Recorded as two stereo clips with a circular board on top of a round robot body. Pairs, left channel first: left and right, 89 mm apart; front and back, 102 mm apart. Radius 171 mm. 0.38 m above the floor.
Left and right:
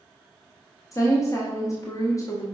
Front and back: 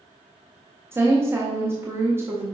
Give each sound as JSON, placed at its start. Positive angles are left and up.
{"t": 0.9, "sound": "a woman speaking", "azimuth_deg": 125, "distance_m": 1.2}